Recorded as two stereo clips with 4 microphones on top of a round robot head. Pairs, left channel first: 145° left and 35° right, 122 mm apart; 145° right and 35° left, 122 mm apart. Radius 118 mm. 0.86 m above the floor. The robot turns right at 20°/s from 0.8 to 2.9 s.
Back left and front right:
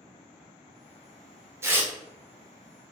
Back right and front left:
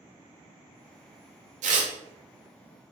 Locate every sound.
1.6 s tearing paper: 35° left, 0.6 m; by 1.9 s 40° left, 0.6 m